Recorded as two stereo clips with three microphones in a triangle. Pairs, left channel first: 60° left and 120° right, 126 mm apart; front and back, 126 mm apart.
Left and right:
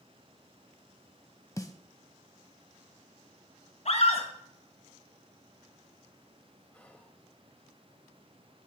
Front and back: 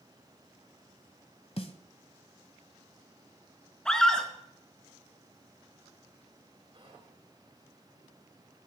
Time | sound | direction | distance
1.6 | a snare drum | 5° left | 1.5 m
3.9 | a scream | 85° left | 4 m
6.7 | whispering | 135° left | 4.5 m